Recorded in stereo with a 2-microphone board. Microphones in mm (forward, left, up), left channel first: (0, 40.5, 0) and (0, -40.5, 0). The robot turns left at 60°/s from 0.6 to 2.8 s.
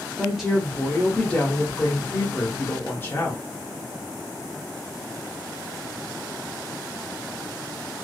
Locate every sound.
0.2 s a woman speaking: 5° right (ahead or behind), 0.8 m; by 3.4 s 25° left (ahead or behind), 0.8 m